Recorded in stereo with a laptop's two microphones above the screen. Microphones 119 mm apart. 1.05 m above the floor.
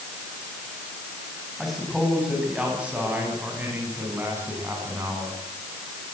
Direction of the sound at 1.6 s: Centre (ahead or behind).